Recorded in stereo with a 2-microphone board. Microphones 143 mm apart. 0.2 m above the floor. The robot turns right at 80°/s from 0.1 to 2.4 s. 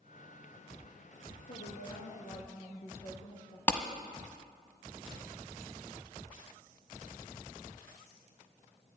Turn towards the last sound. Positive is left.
turn(degrees=15)  # may be behind; listen again after turning